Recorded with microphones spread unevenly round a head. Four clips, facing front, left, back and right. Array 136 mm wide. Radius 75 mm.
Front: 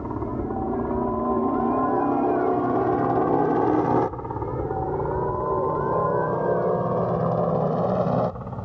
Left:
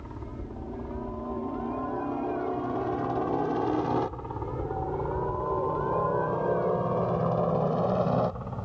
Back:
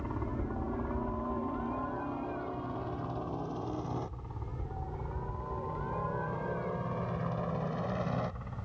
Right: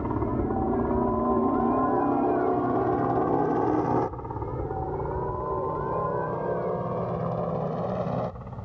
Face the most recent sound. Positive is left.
turn(degrees=15)